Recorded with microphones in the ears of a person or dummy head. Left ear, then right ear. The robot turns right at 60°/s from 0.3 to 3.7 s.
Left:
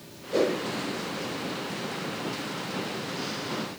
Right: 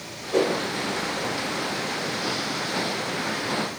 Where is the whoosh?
25° right (ahead or behind), 0.9 m; by 0.5 s 35° right (ahead or behind), 0.9 m.